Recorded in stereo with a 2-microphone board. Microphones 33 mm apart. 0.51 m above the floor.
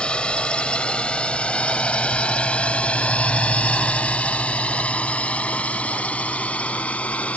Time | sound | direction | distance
0.0 | a drone | 35° left (ahead or behind) | ?